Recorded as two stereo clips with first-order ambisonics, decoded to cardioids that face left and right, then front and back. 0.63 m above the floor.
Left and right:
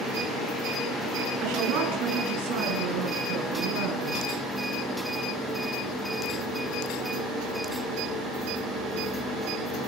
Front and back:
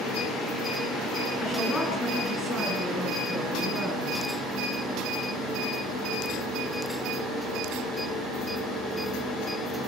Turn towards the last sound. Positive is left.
turn(degrees=-75)